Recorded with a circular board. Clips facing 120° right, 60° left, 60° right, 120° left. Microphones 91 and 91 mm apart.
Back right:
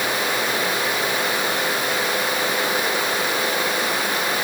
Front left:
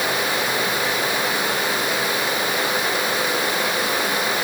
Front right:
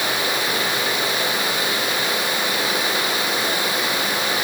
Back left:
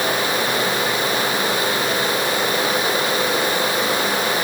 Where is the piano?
No piano in this recording.